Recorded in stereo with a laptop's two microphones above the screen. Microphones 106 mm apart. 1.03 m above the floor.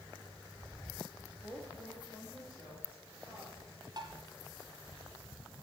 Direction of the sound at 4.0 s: 50° right (ahead or behind).